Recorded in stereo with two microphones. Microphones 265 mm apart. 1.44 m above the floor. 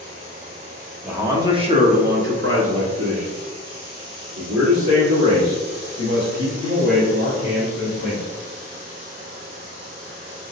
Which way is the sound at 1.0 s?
5° right (ahead or behind).